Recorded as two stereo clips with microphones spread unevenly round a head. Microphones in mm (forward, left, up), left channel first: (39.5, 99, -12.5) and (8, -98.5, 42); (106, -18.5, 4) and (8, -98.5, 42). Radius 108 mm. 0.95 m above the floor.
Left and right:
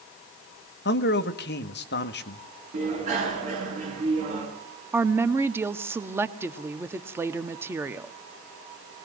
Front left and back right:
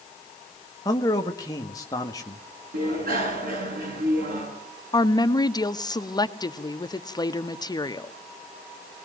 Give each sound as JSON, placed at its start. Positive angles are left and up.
{"t": 0.8, "sound": "a man speaking", "azimuth_deg": 100, "distance_m": 1.5}
{"t": 2.7, "sound": "a bicycle bell", "azimuth_deg": -155, "distance_m": 8.5}
{"t": 4.9, "sound": "a woman speaking", "azimuth_deg": -20, "distance_m": 1.3}